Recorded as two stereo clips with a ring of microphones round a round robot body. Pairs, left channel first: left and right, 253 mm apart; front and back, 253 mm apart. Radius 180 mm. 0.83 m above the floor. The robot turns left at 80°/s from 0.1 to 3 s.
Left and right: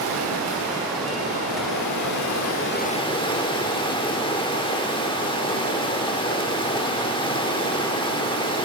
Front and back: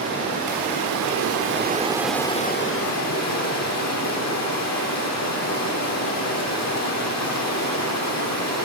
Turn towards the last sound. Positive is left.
turn(degrees=20)